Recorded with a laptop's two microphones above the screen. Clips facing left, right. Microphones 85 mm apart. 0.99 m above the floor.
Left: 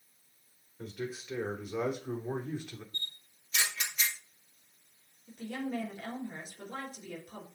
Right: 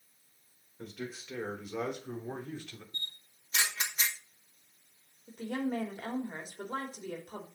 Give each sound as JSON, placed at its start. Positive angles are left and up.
{"t": 0.8, "sound": "a man speaking", "side_deg": 0, "distance_m": 3.5}
{"t": 2.9, "sound": "a camera shutter", "side_deg": -30, "distance_m": 2.5}
{"t": 5.3, "sound": "a woman speaking", "side_deg": -40, "distance_m": 2.5}